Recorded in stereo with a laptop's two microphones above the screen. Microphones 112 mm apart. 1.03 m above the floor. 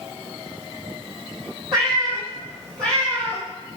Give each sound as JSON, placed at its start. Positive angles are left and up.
{"t": 1.7, "sound": "a cat meowing", "side_deg": -45, "distance_m": 3.0}